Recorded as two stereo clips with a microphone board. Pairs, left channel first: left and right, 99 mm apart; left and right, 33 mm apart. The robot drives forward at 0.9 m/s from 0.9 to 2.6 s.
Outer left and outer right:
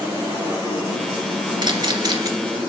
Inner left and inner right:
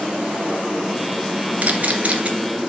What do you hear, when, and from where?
1.6 s a camera shutter: 50° right (ahead or behind), 2 m; by 2.3 s 40° right (ahead or behind), 2.5 m